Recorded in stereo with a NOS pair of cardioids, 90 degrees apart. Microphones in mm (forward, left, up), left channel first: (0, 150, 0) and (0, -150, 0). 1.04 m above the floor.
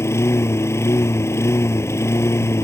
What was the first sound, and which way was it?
A lawn mower, 10° left.